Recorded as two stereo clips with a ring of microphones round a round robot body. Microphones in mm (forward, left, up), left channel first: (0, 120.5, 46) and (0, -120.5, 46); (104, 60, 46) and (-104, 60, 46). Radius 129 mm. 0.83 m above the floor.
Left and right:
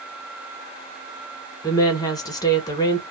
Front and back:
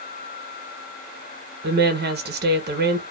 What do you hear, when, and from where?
1.6 s a woman speaking: 160° left, 0.9 m